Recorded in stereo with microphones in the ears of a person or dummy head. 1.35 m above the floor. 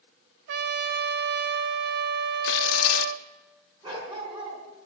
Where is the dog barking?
25° right (ahead or behind), 5 m.